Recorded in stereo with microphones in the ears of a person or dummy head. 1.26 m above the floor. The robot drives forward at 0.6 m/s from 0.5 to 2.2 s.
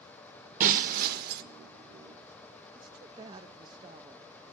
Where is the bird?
No bird in this recording.